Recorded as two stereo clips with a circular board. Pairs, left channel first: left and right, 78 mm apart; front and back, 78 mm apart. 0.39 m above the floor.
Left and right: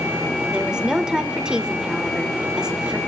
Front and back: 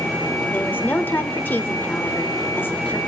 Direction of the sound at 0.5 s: 25° right.